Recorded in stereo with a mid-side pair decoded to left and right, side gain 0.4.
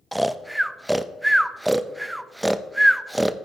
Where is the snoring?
5° right, 0.6 m.